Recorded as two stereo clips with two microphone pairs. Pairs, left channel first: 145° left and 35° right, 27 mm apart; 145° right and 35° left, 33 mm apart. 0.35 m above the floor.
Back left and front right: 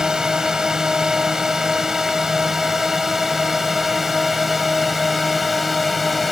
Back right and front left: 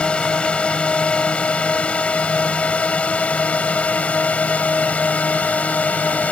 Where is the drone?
100° right; by 6.3 s 125° right.